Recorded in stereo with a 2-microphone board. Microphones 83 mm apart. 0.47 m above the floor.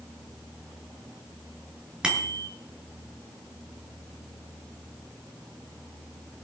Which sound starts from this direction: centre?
A bicycle bell, at 2.0 s.